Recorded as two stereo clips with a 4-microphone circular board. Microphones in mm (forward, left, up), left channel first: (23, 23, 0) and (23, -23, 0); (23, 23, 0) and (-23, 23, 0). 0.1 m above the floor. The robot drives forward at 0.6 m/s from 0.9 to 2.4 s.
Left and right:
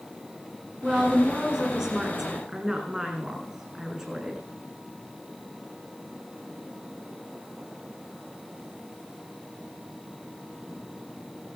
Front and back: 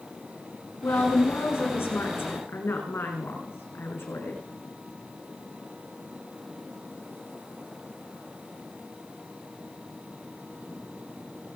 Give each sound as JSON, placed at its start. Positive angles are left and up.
{"t": 0.8, "sound": "a woman speaking", "azimuth_deg": -15, "distance_m": 6.5}